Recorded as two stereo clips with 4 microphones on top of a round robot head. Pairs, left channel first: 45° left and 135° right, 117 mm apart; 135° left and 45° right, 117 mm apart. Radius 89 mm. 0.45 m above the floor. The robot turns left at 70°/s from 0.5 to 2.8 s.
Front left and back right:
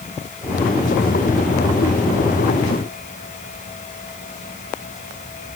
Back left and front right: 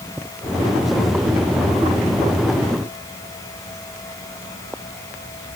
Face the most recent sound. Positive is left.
No sound to turn to.